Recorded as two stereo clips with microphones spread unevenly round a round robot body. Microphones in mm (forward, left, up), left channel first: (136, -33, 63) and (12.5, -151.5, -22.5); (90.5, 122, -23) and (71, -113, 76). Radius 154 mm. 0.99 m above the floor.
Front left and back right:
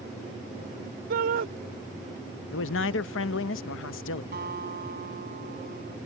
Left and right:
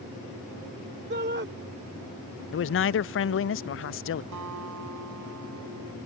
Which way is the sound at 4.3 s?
110° right.